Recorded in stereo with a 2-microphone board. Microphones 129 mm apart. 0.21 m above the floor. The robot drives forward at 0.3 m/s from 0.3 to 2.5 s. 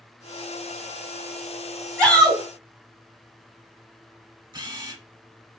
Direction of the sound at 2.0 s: 5° left (ahead or behind).